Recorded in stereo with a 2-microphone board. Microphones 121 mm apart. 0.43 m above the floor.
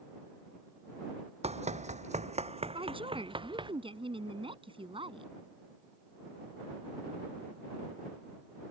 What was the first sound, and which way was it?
Running footsteps, 60° right (ahead or behind).